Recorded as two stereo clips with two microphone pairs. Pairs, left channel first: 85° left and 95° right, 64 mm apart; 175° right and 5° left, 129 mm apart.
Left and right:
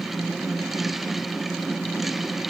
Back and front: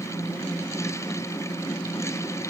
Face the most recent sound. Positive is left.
No sound to turn to.